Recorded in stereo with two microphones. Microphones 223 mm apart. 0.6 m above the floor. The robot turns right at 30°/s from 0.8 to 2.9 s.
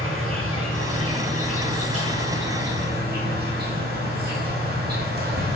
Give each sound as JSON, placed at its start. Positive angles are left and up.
{"t": 0.0, "sound": "an insect", "azimuth_deg": -110, "distance_m": 0.8}